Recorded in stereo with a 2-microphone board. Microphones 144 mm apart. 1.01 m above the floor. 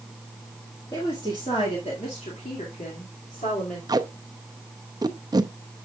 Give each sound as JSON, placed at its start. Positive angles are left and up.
{"t": 0.9, "sound": "a woman speaking", "side_deg": 30, "distance_m": 1.9}
{"t": 3.9, "sound": "tape being pulled", "side_deg": -25, "distance_m": 0.6}